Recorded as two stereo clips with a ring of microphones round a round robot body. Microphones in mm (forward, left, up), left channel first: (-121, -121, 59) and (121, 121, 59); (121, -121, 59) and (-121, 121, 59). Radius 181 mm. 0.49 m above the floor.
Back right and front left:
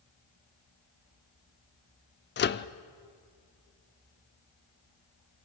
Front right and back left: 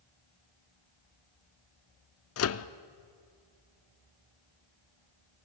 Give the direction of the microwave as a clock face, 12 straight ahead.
3 o'clock.